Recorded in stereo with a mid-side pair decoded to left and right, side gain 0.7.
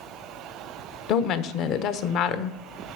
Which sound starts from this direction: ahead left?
A woman speaking, at 1.1 s.